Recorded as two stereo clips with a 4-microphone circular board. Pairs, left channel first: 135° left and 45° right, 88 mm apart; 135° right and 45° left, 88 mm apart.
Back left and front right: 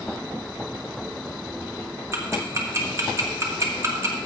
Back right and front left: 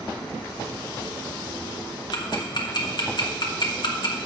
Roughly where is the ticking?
Right.